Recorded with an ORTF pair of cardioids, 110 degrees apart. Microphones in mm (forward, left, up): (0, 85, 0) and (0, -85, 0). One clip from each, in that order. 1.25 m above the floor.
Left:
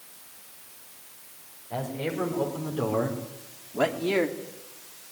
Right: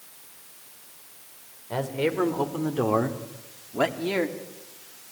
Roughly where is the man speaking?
Ahead right.